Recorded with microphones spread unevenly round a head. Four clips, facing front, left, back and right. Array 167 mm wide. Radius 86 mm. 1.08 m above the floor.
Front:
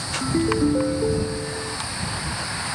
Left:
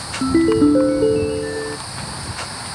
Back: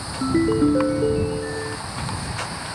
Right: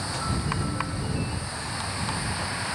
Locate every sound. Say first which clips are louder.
0.2 s a ringtone: left 20 dB, back 3 dB; 100° left